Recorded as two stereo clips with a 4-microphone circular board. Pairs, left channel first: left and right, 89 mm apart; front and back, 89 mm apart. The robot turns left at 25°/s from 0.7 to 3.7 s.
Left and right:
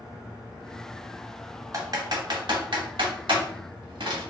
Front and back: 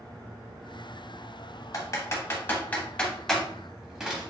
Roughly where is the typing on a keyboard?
Ahead right.